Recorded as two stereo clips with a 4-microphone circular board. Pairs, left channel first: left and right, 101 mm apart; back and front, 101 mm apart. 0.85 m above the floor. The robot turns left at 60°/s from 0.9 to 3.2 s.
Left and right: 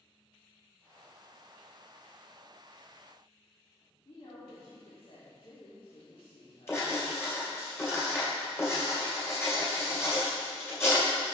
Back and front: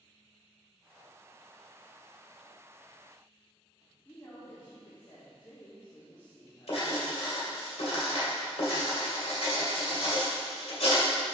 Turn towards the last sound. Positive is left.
turn(degrees=155)